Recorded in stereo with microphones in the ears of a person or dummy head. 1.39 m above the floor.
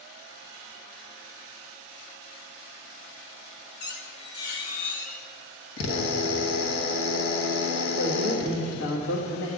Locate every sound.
3.8 s a squeak: 50° left (ahead or behind), 1.3 m
5.8 s a drill: 75° left (ahead or behind), 1.2 m
8.0 s a man speaking: 80° left, 1.7 m